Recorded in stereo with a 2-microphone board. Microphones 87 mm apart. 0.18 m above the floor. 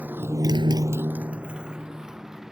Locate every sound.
0.0 s a motorcycle: 20° right (ahead or behind); by 2.5 s 5° right (ahead or behind)